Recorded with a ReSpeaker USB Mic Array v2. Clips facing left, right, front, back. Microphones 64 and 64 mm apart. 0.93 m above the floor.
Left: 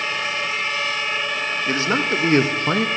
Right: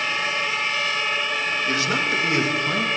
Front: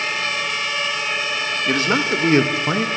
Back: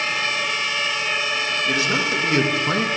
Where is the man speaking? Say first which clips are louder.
Left 4 dB, front 4 dB; 35° left, 1.2 m; by 2.9 s 80° left, 0.7 m.